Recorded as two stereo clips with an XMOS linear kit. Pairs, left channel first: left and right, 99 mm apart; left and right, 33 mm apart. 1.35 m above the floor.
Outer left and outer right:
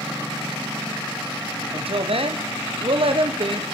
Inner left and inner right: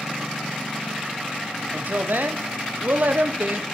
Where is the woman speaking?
70° right (ahead or behind), 1.0 m.